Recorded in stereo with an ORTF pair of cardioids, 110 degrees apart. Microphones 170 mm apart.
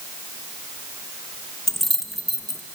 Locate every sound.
1.7 s keys jangling: straight ahead, 0.8 m